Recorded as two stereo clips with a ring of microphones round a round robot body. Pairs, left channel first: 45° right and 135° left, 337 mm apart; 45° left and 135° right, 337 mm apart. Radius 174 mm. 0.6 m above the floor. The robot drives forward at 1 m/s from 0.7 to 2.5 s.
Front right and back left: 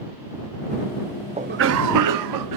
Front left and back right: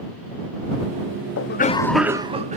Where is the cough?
70° left, 0.7 m; by 2.6 s 155° left, 1.2 m.